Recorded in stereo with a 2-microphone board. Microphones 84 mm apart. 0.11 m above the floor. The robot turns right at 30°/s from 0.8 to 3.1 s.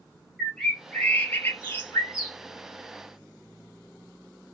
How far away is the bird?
About 1.0 m.